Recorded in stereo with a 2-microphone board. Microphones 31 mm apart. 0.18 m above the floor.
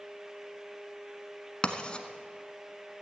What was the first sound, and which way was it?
Writing, 30° left (ahead or behind).